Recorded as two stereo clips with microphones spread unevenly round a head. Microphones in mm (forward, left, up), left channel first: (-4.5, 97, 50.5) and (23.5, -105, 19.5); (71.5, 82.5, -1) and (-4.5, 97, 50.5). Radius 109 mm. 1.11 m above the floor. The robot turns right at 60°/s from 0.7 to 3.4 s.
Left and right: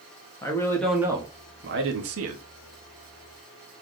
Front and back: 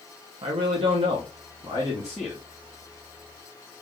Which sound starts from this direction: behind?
A man speaking, at 0.4 s.